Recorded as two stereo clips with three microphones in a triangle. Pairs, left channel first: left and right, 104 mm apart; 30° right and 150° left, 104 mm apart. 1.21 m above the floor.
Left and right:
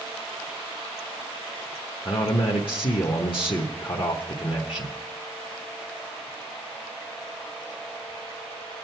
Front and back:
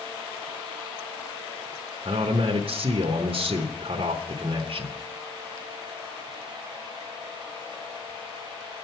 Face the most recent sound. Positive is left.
turn(degrees=125)